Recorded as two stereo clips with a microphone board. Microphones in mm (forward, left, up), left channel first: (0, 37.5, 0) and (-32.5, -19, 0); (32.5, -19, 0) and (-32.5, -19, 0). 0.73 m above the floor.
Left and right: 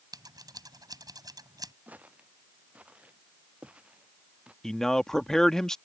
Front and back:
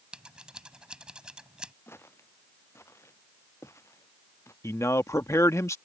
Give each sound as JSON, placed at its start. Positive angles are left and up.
{"t": 0.1, "sound": "scissors", "azimuth_deg": -105}
{"t": 1.9, "sound": "footsteps", "azimuth_deg": -55}
{"t": 4.6, "sound": "a man speaking", "azimuth_deg": -20}